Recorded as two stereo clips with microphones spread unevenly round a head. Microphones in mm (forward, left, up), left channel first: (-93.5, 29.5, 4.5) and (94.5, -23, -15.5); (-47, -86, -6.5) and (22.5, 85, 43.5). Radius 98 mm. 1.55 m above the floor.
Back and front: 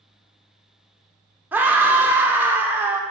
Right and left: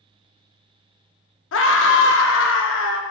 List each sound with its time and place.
1.5 s a scream: 95° right, 1.1 m